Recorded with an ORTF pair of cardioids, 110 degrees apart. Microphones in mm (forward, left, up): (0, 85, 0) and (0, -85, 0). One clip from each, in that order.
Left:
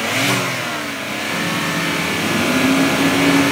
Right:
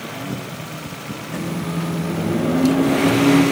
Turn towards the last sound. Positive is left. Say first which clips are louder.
# left 7 dB
turn(degrees=5)